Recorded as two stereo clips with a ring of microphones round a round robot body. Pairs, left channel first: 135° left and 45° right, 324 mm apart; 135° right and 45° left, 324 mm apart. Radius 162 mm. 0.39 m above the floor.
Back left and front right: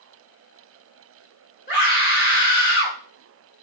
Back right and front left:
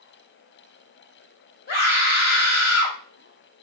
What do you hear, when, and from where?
1.7 s a scream: straight behind, 1.5 m